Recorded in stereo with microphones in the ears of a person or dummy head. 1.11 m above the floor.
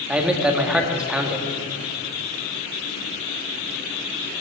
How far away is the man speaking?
About 1.7 m.